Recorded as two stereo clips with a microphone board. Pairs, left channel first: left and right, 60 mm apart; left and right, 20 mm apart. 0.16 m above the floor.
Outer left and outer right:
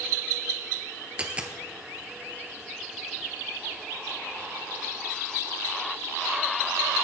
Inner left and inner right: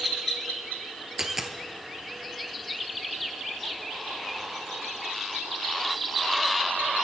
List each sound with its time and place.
1.2 s a dropped coin: 20° right (ahead or behind), 1.1 m